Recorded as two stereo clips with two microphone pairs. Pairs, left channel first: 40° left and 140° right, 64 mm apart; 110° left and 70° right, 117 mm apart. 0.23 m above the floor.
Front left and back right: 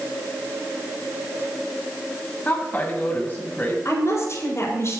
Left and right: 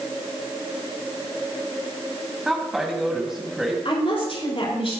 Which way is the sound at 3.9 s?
80° left.